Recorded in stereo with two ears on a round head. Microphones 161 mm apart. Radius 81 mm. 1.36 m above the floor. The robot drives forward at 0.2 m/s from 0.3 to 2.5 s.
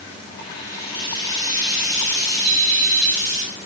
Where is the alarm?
25° left (ahead or behind), 1.2 m.